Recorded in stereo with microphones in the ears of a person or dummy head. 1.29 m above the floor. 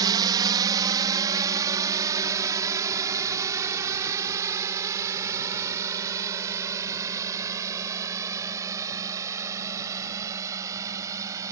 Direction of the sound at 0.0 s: 25° right (ahead or behind).